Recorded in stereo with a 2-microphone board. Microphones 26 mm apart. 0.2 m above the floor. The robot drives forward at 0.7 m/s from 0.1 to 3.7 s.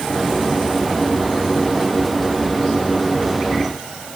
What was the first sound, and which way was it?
Only background noise.